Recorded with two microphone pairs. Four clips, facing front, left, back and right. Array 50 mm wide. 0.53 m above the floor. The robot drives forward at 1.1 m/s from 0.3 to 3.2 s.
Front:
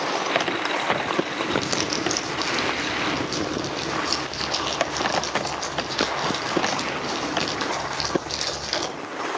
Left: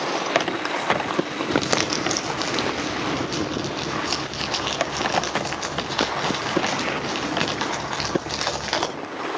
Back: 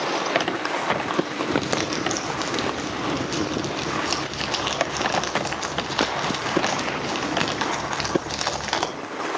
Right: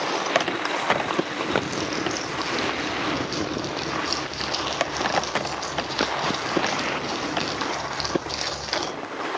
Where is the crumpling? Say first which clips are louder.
Left 5 dB, back 2 dB; 95° left, 1.7 m; by 8.9 s 140° left, 2.5 m.